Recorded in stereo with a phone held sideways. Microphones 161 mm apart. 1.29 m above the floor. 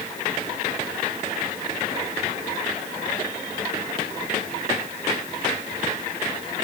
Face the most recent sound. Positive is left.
No sound to turn to.